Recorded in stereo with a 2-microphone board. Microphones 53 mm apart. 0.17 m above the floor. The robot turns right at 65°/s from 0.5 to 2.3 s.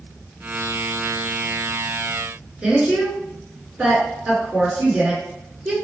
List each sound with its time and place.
2.6 s a woman speaking: 20° right (ahead or behind), 1.8 m